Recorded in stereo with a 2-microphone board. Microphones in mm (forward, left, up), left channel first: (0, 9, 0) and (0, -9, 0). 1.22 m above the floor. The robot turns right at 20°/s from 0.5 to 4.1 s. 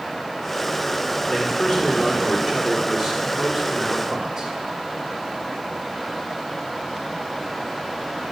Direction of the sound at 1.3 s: 135° left.